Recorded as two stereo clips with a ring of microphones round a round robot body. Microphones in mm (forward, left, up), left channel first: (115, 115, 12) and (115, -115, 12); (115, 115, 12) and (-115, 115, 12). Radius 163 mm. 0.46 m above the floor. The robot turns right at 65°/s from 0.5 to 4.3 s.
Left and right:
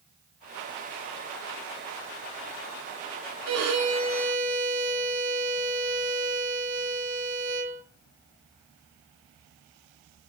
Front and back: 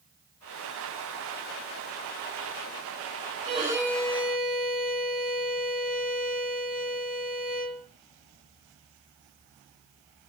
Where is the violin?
115° right, 1.9 m; by 7.8 s 60° right, 1.9 m.